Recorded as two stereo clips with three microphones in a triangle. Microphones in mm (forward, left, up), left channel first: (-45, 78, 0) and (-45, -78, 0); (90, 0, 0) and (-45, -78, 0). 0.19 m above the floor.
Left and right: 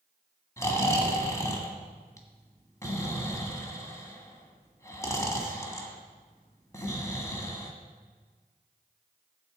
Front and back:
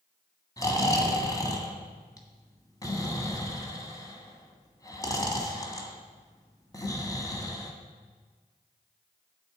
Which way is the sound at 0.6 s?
50° left.